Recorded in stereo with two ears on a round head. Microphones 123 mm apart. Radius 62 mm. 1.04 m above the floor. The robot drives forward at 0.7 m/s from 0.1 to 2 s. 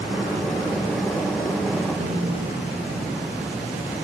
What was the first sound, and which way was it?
A snare drum, 60° right (ahead or behind).